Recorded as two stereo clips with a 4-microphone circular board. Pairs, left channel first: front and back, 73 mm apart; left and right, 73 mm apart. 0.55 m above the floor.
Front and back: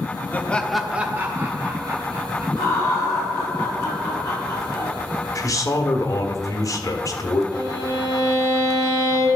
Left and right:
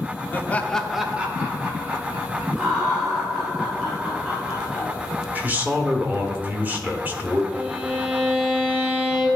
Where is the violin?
25° right, 3 m.